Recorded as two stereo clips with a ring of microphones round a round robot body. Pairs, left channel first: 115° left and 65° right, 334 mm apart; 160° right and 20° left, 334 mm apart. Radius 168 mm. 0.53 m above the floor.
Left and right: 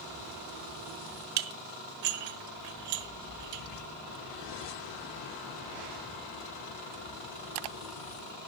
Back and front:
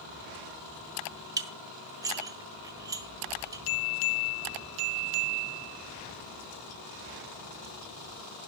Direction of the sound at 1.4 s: 60° right.